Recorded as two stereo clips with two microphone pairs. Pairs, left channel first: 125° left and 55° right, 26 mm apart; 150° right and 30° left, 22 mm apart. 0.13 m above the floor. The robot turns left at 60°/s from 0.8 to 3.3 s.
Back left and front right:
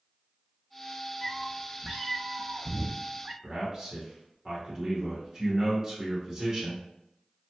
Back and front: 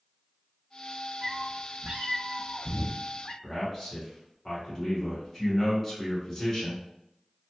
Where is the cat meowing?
45° left, 0.5 m; by 3.3 s 80° right, 0.5 m.